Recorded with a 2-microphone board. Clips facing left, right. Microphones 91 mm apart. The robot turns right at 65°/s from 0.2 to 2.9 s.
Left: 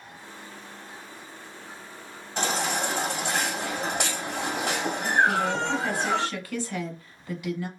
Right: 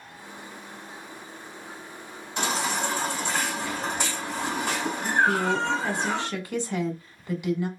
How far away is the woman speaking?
About 1.0 m.